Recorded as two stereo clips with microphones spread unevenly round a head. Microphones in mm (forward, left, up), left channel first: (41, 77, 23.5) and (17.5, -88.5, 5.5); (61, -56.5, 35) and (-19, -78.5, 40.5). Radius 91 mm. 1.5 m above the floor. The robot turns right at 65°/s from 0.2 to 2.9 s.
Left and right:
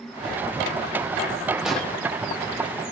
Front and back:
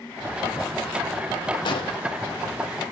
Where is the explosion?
10° right, 1.1 m; by 2.0 s 10° left, 1.1 m.